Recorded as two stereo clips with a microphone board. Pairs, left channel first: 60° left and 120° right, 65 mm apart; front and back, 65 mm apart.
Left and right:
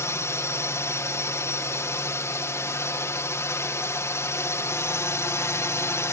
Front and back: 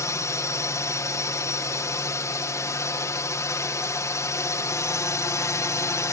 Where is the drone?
25° left.